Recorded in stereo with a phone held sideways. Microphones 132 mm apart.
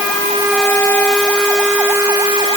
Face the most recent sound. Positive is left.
No sound to turn to.